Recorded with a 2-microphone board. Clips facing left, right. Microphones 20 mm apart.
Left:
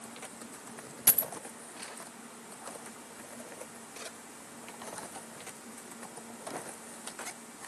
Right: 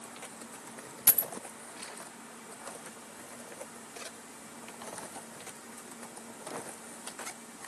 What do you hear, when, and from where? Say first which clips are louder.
1.1 s a dropped coin: even; 25° left (ahead or behind), 0.8 m